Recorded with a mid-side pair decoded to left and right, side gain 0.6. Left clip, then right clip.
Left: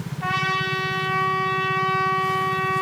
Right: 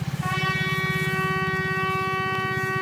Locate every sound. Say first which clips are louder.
0.2 s a trumpet: left 3 dB; 25° left, 8.5 m